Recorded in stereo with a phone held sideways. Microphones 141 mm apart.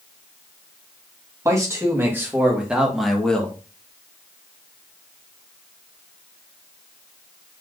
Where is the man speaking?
20° right (ahead or behind), 1.7 m; by 3.6 s 10° left (ahead or behind), 1.0 m.